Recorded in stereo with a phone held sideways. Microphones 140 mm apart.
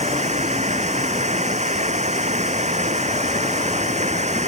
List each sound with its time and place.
0.0 s running water: 55° right (ahead or behind)